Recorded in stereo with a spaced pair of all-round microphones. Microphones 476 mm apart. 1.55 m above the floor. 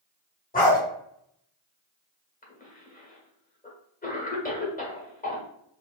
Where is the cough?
20° left (ahead or behind), 1.3 m.